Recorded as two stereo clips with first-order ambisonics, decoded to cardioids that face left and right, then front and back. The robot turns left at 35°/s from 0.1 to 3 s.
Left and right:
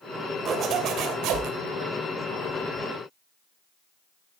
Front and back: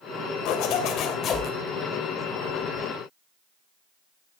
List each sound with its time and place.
0.5 s a zipper: 25° right, 2.5 m; by 1.5 s 65° right, 2.5 m